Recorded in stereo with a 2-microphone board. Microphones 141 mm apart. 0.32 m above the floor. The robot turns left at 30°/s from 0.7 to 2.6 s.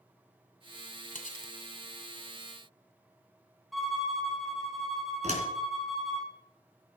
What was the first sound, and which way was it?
Cutlery clinking, 65° left (ahead or behind).